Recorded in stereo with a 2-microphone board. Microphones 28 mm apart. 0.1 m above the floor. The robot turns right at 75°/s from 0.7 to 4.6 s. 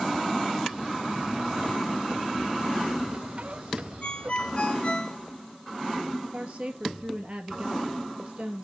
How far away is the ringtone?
About 0.9 m.